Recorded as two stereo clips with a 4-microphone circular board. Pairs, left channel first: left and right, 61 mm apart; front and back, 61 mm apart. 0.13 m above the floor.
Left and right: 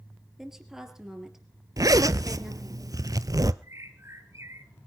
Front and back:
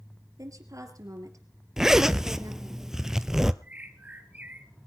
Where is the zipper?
100° right, 0.6 m.